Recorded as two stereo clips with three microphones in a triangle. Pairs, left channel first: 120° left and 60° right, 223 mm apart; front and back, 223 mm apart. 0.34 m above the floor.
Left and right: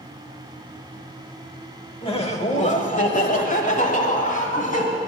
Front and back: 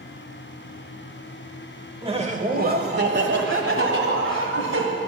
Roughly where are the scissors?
I don't hear scissors.